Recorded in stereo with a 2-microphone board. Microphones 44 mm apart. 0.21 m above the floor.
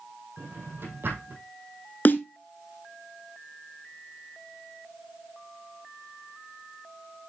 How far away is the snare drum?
About 1.0 m.